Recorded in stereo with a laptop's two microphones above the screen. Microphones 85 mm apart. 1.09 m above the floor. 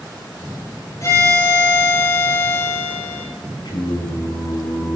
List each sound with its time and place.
1.0 s a violin: 40° left (ahead or behind), 7 m
3.6 s singing: 80° left, 6.5 m